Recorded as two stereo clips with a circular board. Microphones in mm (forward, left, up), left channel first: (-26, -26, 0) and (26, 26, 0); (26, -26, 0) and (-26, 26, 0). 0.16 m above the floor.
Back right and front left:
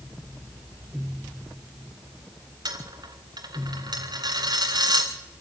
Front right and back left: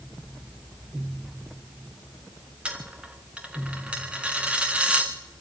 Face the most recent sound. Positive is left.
turn(degrees=60)